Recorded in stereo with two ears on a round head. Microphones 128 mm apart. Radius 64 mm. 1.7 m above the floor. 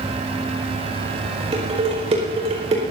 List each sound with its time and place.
1.5 s dishes clattering: 45° right (ahead or behind), 5 m